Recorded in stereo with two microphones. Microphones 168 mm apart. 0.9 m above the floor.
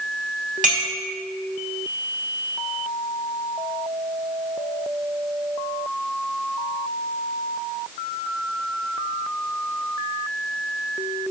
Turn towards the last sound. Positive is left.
turn(degrees=-50)  # may be behind; listen again after turning